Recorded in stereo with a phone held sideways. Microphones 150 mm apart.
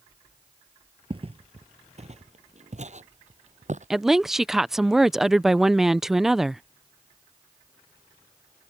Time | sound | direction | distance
1.1 | footsteps | 40° right (ahead or behind) | ?
3.9 | a woman speaking | centre (ahead or behind) | ?